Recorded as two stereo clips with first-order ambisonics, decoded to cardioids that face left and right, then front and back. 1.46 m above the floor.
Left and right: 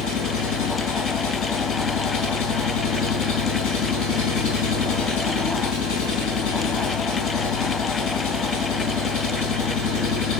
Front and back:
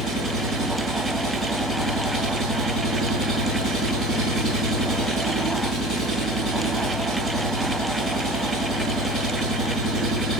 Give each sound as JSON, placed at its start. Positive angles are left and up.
{"t": 0.0, "sound": "an engine running", "azimuth_deg": 70, "distance_m": 4.5}